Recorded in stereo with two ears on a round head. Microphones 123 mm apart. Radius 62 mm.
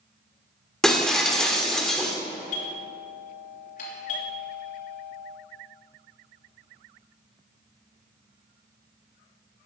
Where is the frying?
No frying in this recording.